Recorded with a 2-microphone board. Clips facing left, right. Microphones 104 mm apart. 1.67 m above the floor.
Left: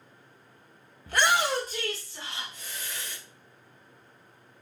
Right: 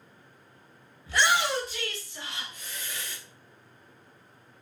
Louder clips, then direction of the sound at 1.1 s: Left 1 dB; 50° left (ahead or behind).